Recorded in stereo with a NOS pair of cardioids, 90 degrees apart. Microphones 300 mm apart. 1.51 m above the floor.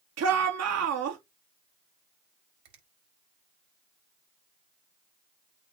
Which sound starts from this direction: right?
A finger snap, at 2.6 s.